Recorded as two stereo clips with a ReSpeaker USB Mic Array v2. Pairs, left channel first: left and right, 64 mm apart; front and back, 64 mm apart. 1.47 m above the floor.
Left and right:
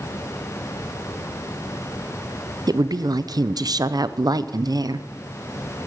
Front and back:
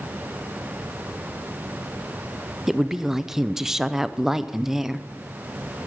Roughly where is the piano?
No piano in this recording.